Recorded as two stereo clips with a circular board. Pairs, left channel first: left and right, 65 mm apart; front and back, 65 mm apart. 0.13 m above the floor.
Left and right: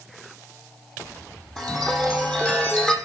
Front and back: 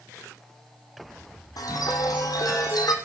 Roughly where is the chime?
Ahead.